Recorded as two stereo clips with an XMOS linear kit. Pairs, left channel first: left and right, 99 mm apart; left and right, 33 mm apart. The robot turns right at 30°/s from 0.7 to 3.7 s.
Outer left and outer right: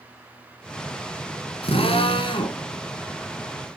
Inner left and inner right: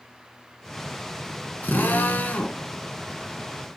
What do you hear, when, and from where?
1.6 s a drill: 70° left (ahead or behind), 1.8 m; by 2.6 s 55° left (ahead or behind), 1.8 m